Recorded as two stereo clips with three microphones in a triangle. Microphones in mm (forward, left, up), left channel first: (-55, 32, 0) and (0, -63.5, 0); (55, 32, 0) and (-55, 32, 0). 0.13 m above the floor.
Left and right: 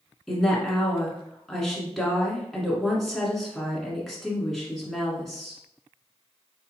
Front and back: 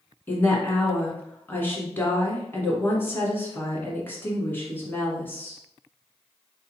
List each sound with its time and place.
0.3 s a woman speaking: 35° left, 1.4 m